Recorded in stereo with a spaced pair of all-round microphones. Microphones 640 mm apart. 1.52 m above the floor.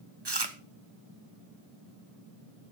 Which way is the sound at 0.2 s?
40° right (ahead or behind).